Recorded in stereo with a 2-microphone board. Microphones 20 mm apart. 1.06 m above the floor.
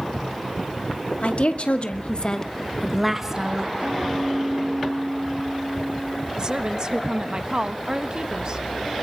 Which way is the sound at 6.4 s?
35° right (ahead or behind).